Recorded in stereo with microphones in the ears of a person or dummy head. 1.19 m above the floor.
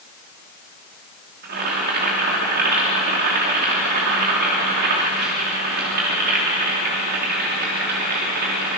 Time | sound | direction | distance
1.4 | boiling | 50° right (ahead or behind) | 3 m